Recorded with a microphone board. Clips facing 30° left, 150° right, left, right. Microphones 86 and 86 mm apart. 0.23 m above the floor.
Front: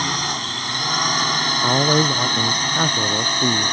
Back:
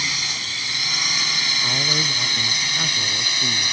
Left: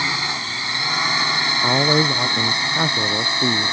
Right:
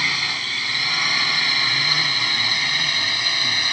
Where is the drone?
30° left; by 3.7 s 40° left.